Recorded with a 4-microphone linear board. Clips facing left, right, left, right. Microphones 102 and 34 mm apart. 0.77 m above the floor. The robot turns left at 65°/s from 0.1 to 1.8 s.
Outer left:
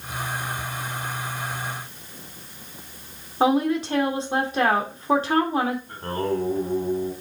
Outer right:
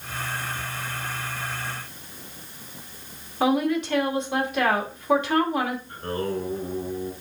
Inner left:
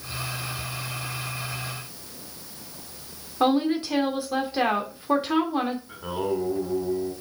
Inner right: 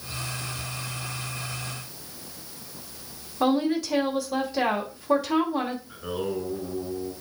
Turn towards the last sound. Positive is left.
turn(degrees=60)  # may be behind; listen again after turning